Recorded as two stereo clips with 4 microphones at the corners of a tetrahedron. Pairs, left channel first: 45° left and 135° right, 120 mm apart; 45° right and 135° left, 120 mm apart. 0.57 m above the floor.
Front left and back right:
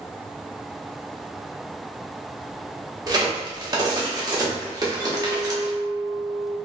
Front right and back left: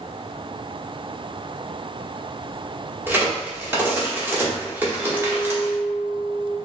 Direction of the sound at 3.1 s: 165° right.